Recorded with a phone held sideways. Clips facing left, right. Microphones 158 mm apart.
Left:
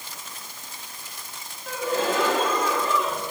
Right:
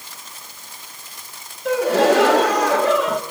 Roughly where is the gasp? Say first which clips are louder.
Right 10 dB; right.